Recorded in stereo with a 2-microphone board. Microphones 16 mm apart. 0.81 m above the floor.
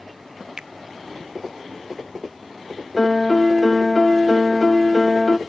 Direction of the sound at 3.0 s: 15° left (ahead or behind).